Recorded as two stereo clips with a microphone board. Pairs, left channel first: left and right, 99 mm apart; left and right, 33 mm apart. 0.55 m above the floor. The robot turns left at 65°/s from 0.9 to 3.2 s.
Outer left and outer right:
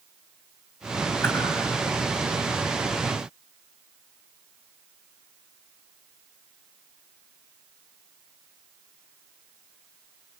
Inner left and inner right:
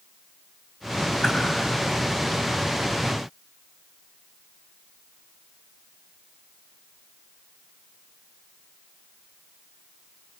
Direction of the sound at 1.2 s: 20° left (ahead or behind).